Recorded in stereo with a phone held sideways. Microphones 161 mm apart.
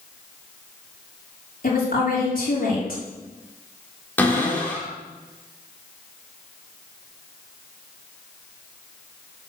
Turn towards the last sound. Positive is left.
turn(degrees=10)  # may be behind; listen again after turning